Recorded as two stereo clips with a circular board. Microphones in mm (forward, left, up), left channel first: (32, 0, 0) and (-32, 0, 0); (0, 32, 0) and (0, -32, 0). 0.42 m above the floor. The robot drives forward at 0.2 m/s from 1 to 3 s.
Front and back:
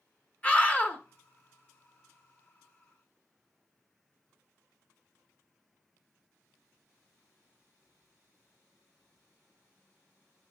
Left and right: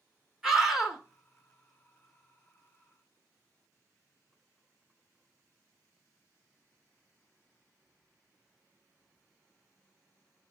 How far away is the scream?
About 1.1 m.